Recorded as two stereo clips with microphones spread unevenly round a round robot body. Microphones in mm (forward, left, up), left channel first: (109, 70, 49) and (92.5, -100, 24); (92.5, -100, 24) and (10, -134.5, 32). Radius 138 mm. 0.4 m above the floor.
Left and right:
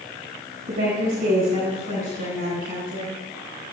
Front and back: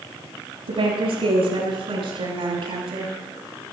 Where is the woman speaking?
150° right, 9.5 m; by 3.1 s 135° right, 11.5 m.